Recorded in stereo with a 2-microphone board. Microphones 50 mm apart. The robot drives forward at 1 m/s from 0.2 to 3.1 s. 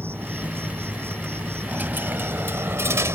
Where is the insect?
50° right (ahead or behind); by 3.2 s 55° right (ahead or behind).